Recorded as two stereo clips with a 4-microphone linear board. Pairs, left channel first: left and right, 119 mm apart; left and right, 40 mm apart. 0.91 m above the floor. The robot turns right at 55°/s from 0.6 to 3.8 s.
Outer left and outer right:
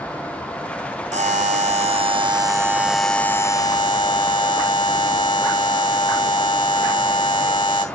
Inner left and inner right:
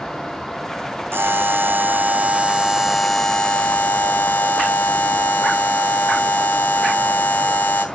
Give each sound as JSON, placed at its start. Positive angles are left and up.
{"t": 1.1, "sound": "a buzzer", "azimuth_deg": -105, "distance_m": 3.5}